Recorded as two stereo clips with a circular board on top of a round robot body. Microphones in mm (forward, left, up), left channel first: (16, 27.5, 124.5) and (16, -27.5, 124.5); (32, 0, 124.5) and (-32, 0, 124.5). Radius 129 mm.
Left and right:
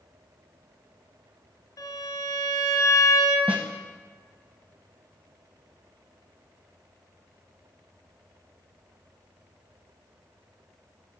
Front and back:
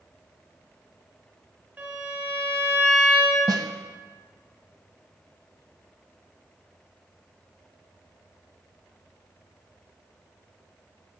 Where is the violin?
115° left, 1.7 m.